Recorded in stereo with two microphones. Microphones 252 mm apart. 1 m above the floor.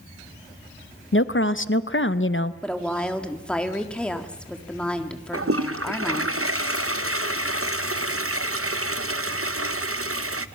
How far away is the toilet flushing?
About 0.7 m.